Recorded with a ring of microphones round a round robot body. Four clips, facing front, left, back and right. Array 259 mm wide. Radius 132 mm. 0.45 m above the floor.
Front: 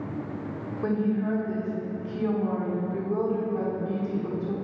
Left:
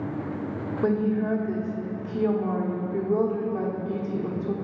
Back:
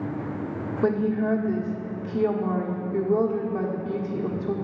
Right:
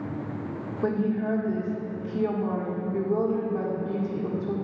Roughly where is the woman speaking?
Behind.